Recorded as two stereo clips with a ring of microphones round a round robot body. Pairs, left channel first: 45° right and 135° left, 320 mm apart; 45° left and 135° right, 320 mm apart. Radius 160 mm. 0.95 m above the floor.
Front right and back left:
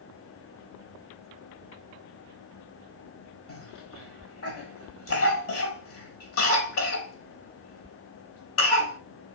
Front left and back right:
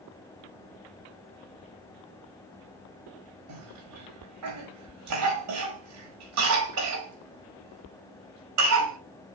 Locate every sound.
3.5 s a cough: 95° right, 4 m